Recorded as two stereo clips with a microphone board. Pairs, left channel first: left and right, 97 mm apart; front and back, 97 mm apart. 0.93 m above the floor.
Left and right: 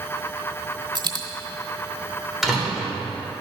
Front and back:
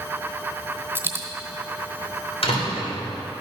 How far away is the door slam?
About 3 m.